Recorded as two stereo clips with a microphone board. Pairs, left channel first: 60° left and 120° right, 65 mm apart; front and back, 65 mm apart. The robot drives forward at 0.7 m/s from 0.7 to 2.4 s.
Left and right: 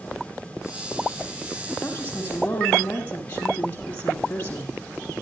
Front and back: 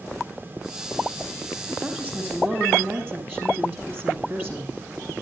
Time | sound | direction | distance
1.8 | a woman speaking | 120° left | 3.5 m